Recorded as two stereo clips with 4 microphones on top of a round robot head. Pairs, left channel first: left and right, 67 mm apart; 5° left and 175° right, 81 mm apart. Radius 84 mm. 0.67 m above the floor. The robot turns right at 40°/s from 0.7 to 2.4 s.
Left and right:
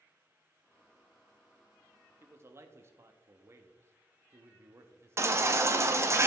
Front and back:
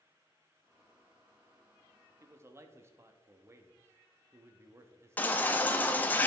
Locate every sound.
2.2 s a man speaking: 135° right, 0.8 m; by 5.2 s 125° right, 0.8 m
5.2 s a baby crying: 60° right, 0.9 m